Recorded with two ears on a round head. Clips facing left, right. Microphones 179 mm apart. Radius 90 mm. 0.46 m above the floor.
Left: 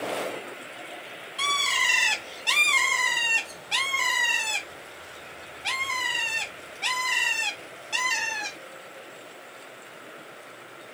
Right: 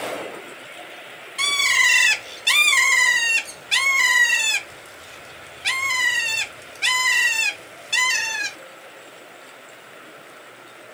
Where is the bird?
25° right (ahead or behind), 0.7 m.